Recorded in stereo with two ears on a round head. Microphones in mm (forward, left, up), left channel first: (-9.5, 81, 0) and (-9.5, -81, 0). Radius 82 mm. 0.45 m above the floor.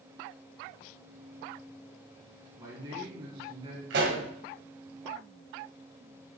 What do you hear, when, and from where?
2.6 s a man speaking: 20° right (ahead or behind), 4 m; by 4.9 s 40° right (ahead or behind), 3.5 m
3.9 s a pop: 65° right (ahead or behind), 2.5 m